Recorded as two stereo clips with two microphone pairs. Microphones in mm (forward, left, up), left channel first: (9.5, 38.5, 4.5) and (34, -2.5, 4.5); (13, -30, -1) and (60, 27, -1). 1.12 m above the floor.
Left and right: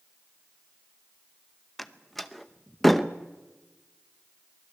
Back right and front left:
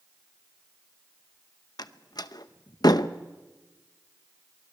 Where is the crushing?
I don't hear crushing.